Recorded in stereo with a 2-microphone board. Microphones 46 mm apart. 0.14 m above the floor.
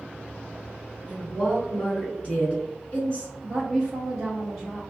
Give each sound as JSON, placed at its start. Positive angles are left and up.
{"t": 1.1, "sound": "a woman speaking", "side_deg": 30, "distance_m": 1.8}
{"t": 3.4, "sound": "a woman speaking", "side_deg": 0, "distance_m": 2.0}